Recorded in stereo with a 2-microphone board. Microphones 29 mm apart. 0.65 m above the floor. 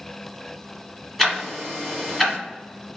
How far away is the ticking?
About 1.5 m.